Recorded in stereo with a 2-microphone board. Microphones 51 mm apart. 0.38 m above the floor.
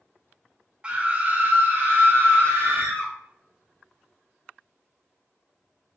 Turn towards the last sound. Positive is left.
turn(degrees=-50)  # may be behind; listen again after turning